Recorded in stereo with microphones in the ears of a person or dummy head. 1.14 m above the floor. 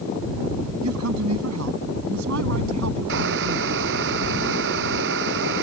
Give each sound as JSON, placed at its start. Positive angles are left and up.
{"t": 0.8, "sound": "a man speaking", "side_deg": -85}
{"t": 3.1, "sound": "boiling", "side_deg": -60}